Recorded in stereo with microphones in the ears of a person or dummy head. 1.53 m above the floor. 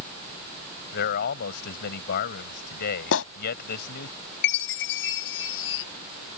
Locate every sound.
0.9 s a man speaking: 55° left (ahead or behind)
3.1 s a clap: 80° left
4.4 s a chime: 75° left (ahead or behind)